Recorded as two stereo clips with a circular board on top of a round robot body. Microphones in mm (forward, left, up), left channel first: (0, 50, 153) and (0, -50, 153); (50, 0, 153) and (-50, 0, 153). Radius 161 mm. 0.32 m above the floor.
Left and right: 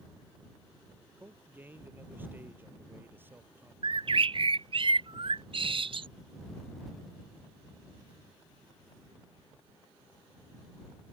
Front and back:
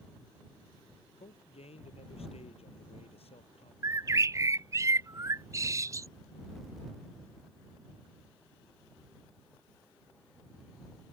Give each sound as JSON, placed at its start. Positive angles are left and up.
{"t": 1.2, "sound": "a man speaking", "azimuth_deg": -20}
{"t": 3.8, "sound": "a bird", "azimuth_deg": -120}